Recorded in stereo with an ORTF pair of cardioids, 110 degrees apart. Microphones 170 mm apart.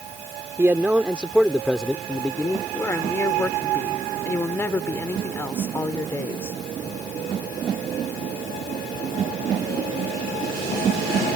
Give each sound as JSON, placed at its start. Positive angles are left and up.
{"t": 0.6, "sound": "a man speaking", "azimuth_deg": -15}
{"t": 2.7, "sound": "a woman speaking", "azimuth_deg": 15}